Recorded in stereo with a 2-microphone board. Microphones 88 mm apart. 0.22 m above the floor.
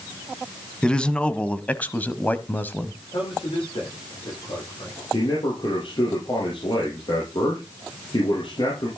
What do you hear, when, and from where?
0.8 s a man speaking: 10° left (ahead or behind), 1.4 m; by 2.9 s 20° left (ahead or behind), 1.0 m
3.1 s a man speaking: 75° left (ahead or behind), 9 m
5.1 s a man speaking: 65° left (ahead or behind), 6.5 m